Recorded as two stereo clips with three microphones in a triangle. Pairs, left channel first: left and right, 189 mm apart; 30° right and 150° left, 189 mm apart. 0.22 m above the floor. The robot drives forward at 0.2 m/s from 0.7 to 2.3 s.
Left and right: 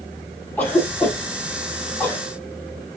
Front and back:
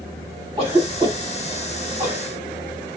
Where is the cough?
155° left, 1.7 m; by 2.2 s 165° left, 1.9 m.